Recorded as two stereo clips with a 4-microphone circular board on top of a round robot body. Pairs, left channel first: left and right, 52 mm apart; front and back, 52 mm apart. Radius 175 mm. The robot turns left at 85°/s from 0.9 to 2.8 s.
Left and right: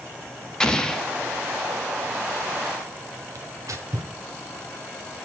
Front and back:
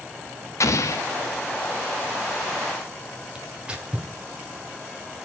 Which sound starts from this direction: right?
Tearing paper, at 3.4 s.